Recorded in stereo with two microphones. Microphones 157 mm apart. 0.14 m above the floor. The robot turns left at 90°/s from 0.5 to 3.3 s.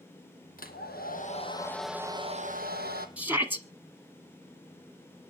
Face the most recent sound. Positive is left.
turn(degrees=-15)  # may be behind; listen again after turning